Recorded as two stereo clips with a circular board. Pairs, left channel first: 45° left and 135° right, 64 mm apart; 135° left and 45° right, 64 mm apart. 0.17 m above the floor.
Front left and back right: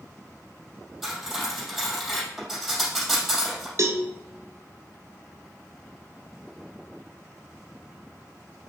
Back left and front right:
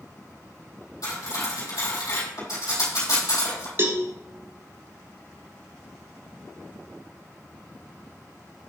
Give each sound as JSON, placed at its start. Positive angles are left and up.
{"t": 1.0, "sound": "cutlery clinking", "azimuth_deg": 140, "distance_m": 3.0}
{"t": 3.8, "sound": "a cowbell", "azimuth_deg": -95, "distance_m": 0.8}